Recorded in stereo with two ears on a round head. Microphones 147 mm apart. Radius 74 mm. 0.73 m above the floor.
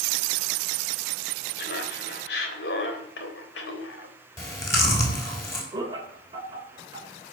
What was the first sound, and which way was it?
Laughter, 65° left (ahead or behind).